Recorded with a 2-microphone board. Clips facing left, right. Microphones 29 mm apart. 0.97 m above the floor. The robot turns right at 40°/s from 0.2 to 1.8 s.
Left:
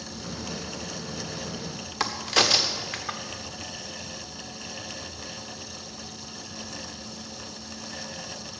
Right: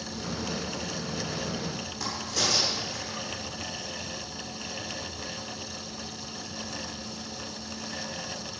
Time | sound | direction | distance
2.0 | a crack | 70° left (ahead or behind) | 1.3 m